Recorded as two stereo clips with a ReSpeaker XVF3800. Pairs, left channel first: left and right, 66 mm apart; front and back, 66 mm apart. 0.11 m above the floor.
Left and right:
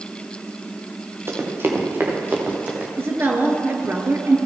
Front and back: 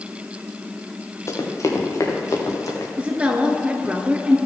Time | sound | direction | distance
1.3 | running footsteps | 40° right | 2.5 m
3.0 | a woman speaking | 120° right | 1.7 m